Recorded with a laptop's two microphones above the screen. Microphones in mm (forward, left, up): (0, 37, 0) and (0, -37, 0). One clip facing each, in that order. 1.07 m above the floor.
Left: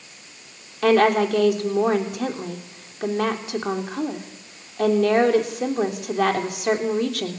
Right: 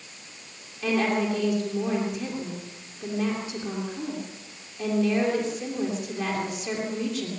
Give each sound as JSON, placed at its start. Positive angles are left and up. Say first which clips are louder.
{"t": 0.8, "sound": "a woman speaking", "louder": "left 8 dB", "side_deg": 75, "distance_m": 3.0}